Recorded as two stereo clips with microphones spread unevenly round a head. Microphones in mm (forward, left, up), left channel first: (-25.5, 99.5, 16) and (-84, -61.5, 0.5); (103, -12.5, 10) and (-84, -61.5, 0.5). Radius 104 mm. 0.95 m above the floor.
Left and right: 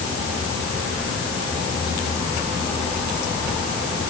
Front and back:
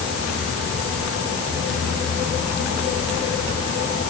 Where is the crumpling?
I don't hear crumpling.